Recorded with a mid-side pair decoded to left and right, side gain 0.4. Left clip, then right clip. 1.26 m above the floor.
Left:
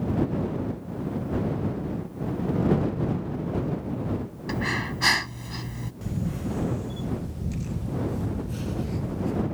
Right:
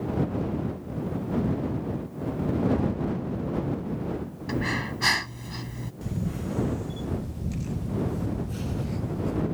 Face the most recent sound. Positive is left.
turn(degrees=0)